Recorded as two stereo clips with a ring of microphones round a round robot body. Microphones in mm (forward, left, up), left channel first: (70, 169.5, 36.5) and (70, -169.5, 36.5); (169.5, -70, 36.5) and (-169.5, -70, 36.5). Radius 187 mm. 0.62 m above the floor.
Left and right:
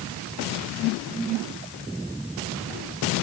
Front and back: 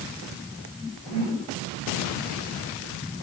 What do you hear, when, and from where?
Only background noise.